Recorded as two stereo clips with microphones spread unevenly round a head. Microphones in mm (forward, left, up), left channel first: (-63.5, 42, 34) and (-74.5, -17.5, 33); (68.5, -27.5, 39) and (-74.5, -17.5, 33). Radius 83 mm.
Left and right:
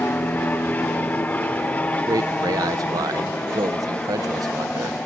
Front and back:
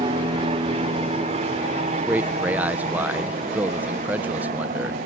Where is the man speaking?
105° right.